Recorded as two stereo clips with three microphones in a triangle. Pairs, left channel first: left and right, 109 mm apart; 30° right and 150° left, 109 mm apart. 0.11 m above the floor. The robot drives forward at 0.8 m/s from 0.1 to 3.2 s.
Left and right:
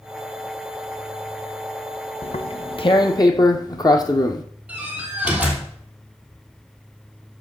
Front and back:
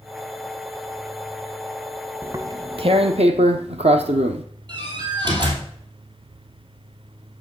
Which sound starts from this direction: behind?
A door slam, at 4.7 s.